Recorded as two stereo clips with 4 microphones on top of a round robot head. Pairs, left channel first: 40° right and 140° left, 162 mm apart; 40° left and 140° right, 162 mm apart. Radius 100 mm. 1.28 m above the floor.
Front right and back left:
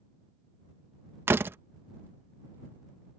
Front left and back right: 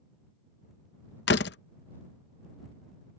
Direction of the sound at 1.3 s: 65° left.